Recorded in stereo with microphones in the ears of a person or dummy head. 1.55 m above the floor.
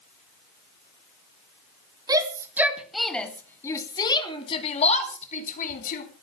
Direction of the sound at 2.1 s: 20° right (ahead or behind).